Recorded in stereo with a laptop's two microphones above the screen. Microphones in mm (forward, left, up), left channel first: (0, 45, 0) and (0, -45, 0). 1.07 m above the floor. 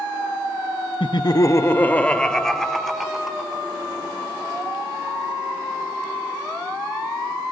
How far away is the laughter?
About 1.1 m.